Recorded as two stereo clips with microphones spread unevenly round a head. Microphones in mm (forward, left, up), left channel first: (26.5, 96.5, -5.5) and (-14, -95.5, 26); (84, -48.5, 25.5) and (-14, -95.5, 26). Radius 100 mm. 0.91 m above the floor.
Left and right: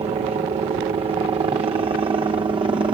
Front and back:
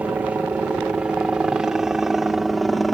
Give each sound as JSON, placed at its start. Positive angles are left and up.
{"t": 0.0, "sound": "a helicopter", "azimuth_deg": -105}